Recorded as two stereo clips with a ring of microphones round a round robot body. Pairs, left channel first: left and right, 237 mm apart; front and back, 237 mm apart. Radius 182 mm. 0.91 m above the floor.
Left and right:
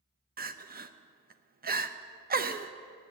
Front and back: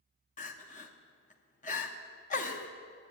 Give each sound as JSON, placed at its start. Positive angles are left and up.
{"t": 0.4, "sound": "crying", "azimuth_deg": -50, "distance_m": 0.8}